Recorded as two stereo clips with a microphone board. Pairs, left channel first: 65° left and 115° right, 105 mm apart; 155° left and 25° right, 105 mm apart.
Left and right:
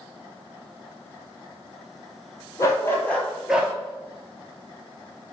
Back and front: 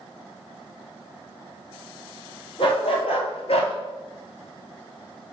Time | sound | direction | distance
2.6 | a dog barking | 125° left | 0.9 m